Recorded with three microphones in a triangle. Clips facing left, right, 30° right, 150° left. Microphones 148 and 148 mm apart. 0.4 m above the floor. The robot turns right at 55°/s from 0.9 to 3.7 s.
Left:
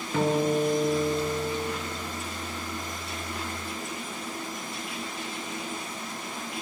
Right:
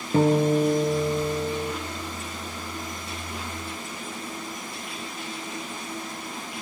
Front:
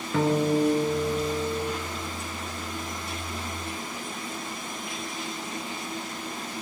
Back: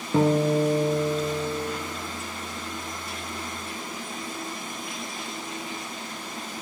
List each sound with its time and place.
0.1 s a guitar: 145° right, 3.5 m; by 1.7 s 100° right, 3.5 m